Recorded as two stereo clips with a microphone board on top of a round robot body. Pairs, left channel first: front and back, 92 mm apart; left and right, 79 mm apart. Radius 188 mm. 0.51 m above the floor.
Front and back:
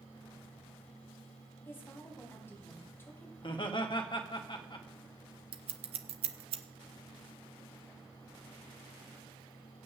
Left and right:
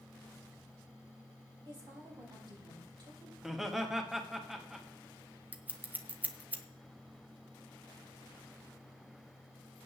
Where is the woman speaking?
65° right, 4.5 m.